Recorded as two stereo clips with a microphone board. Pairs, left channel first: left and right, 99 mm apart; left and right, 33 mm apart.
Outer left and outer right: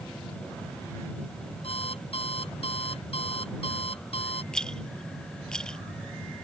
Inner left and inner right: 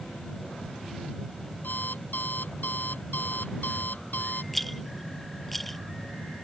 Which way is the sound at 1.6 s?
90° left.